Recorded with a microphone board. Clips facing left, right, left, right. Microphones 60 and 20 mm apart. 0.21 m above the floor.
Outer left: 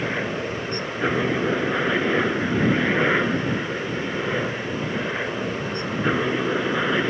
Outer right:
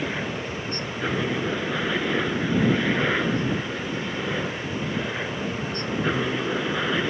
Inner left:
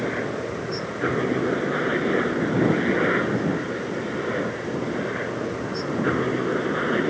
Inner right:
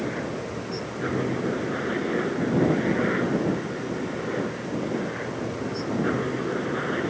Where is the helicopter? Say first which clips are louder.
Outer left 3 dB, inner left 3 dB; 20° left (ahead or behind); by 7.1 s 15° left (ahead or behind).